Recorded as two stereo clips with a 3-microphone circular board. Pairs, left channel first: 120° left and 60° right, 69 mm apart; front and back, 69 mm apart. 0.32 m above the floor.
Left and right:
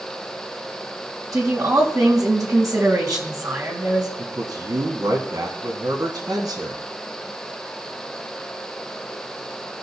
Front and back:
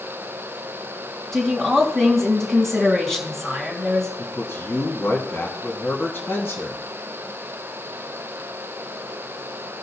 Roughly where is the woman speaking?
Right.